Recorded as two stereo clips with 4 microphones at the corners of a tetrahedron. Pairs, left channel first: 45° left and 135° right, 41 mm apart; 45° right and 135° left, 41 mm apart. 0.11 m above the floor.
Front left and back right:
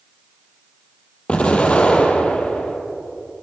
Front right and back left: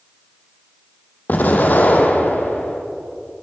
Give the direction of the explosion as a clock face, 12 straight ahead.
12 o'clock.